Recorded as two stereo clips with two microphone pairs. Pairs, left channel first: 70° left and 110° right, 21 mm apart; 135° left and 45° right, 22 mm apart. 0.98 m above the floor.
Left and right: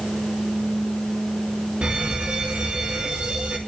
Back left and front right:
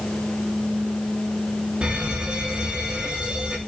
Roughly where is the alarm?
Right.